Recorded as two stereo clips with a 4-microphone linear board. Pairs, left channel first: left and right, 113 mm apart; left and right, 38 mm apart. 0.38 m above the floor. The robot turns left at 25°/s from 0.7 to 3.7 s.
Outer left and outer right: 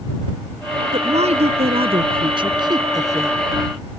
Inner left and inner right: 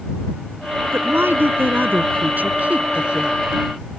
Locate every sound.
0.9 s a woman speaking: 95° right; by 3.4 s 155° right